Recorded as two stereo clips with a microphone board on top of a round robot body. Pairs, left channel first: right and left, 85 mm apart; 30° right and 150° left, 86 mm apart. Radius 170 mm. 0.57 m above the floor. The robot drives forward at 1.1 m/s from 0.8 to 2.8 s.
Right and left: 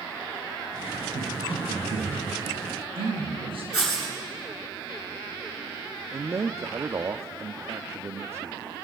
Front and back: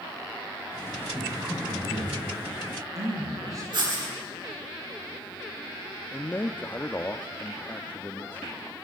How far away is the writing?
About 9 m.